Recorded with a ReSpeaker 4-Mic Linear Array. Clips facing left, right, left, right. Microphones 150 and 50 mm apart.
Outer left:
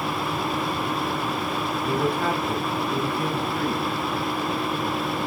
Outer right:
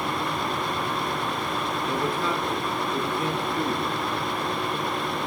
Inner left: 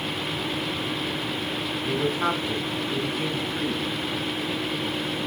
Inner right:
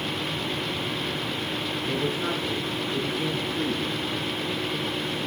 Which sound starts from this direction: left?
A man speaking, at 1.8 s.